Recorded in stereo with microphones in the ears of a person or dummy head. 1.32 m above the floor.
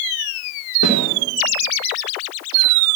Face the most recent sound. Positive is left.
turn(degrees=70)  # may be behind; listen again after turning